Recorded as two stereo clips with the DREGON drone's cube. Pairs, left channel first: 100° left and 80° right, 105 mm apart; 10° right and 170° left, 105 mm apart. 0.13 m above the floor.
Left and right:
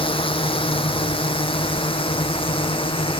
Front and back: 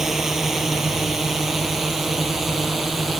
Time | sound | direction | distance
0.0 | a drone | 80° left | ?